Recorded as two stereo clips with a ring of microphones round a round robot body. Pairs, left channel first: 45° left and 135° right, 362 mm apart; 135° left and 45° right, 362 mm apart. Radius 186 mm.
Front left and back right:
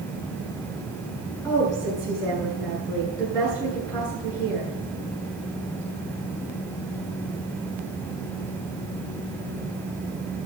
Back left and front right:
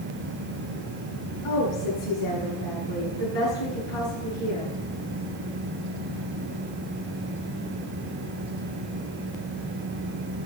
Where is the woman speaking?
125° left, 7.5 m.